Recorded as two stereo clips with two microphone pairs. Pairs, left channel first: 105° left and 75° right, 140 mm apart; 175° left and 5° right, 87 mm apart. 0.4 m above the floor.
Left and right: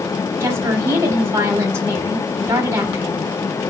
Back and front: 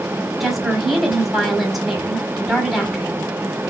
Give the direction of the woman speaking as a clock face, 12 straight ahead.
3 o'clock.